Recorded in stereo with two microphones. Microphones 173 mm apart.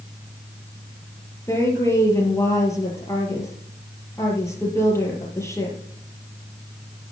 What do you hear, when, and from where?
1.5 s a woman speaking: 15° left (ahead or behind), 4 m